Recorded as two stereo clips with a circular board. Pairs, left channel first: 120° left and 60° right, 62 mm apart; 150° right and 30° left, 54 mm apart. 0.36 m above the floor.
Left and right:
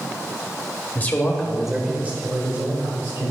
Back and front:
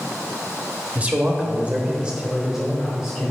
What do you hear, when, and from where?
0.9 s a man speaking: 75° left, 1.1 m; by 3.3 s 60° right, 1.7 m